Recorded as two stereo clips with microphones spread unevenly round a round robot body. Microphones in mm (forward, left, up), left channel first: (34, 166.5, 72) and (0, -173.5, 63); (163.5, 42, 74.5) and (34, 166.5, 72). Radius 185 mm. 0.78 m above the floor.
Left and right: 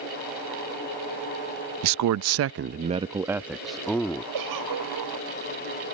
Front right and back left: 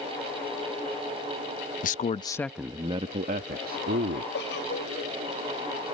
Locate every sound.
1.8 s a man speaking: 70° right; by 4.2 s 170° left
4.3 s a giggle: 75° right